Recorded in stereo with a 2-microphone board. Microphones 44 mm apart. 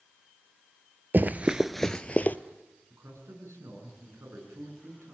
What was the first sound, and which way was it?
Running footsteps, 45° right (ahead or behind).